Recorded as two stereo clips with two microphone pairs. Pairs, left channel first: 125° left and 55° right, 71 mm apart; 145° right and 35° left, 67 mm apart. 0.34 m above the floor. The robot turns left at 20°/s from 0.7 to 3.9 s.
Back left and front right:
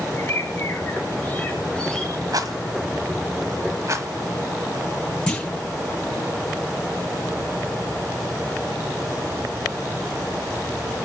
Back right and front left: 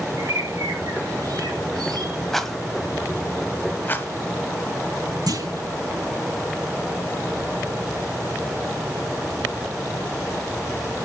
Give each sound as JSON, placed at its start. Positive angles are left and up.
{"t": 0.2, "sound": "a bird", "azimuth_deg": 70, "distance_m": 5.0}
{"t": 2.3, "sound": "a rattle", "azimuth_deg": -60, "distance_m": 1.4}
{"t": 5.3, "sound": "a clunk", "azimuth_deg": 50, "distance_m": 6.0}